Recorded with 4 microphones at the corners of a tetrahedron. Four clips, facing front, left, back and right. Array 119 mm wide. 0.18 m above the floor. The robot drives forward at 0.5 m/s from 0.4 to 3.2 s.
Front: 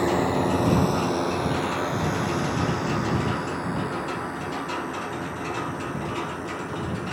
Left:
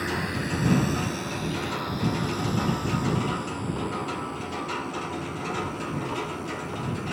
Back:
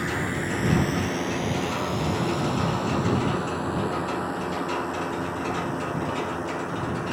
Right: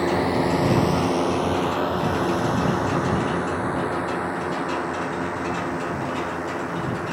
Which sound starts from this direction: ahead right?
A drone, at 0.0 s.